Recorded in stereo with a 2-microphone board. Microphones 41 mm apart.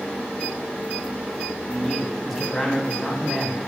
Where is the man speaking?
5° right (ahead or behind), 2.5 m.